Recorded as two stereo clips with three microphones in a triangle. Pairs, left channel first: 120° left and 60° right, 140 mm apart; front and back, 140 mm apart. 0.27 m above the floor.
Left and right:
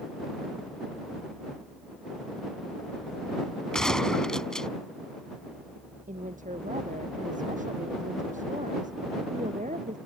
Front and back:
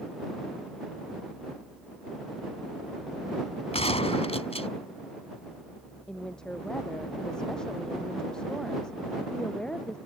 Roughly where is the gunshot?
Ahead left.